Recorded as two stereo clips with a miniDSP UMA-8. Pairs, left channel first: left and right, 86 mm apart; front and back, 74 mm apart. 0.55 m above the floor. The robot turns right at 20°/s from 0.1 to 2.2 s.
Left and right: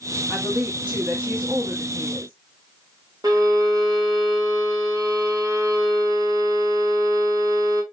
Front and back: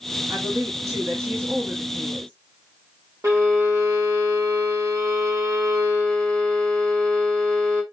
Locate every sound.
0.3 s a woman speaking: 170° right, 1.3 m; by 2.3 s 135° right, 1.3 m
3.2 s a violin: 130° right, 1.8 m